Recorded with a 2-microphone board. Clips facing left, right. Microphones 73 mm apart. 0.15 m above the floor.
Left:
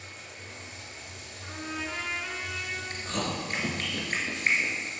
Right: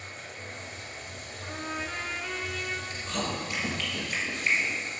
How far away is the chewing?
About 2 m.